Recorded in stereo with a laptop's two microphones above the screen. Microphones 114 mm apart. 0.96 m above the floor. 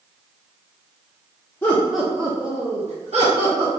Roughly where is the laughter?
Centre.